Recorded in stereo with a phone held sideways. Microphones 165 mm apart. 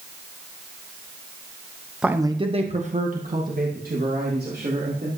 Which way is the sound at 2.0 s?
5° right (ahead or behind).